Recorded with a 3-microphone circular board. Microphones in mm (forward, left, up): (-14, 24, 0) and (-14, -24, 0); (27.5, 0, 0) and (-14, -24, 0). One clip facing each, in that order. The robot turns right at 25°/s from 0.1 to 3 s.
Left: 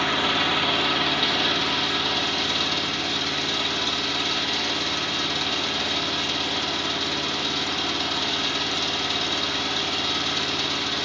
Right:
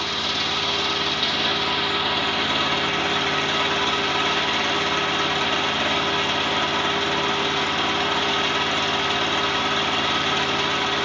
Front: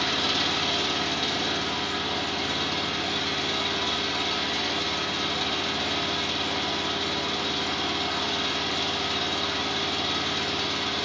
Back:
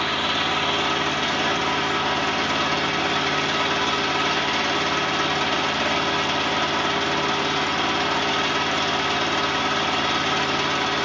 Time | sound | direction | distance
0.0 | an engine running | 150° left | 0.9 m